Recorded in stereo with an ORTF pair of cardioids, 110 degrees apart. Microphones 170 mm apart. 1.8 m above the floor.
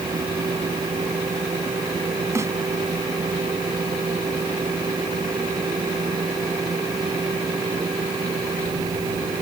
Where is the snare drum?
15° right.